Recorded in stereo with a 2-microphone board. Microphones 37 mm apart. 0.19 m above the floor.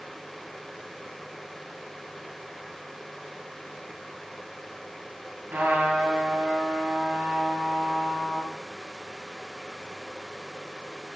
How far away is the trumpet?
About 2.5 m.